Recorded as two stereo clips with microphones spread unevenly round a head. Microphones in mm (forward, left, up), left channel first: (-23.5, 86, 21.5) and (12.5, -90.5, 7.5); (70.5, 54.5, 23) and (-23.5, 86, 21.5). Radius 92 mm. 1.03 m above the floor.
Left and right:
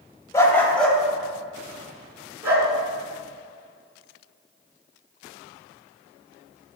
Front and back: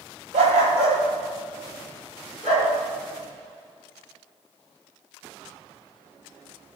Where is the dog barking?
170° left, 1.5 m; by 2.7 s 160° right, 4 m.